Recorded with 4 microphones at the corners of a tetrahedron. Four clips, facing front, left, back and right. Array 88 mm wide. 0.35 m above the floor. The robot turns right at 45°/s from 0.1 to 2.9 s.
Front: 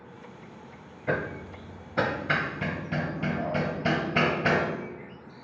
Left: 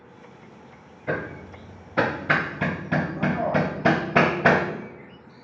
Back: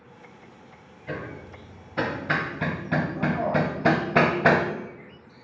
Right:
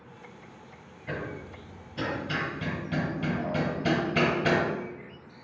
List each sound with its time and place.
1.1 s hammering: 45° left, 0.9 m; by 4.7 s 125° left, 0.9 m